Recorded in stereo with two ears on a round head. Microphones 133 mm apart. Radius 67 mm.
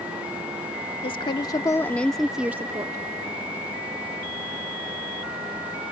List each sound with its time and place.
1.0 s a woman speaking: 35° left (ahead or behind); by 3.0 s 25° right (ahead or behind)